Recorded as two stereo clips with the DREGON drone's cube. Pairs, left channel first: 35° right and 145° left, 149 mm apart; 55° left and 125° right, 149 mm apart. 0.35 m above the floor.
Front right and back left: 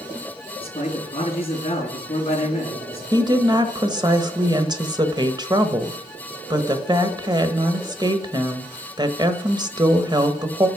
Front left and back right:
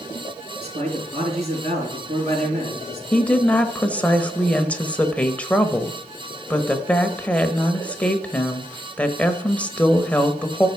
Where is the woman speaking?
130° left, 1.0 m.